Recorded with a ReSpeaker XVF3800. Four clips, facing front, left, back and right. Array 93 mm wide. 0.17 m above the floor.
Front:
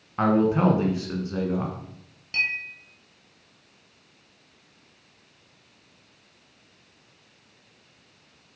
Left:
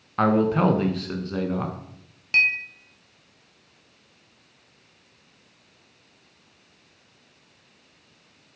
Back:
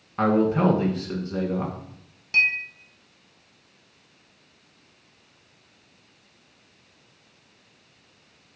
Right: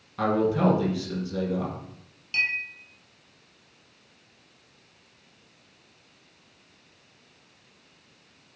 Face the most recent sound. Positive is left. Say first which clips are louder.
# left 6 dB, back 5 dB
turn(degrees=95)